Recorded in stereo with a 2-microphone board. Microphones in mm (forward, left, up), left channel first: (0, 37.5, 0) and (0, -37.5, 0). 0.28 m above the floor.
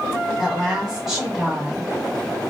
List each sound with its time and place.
0.4 s a woman speaking: 5° right (ahead or behind), 1.4 m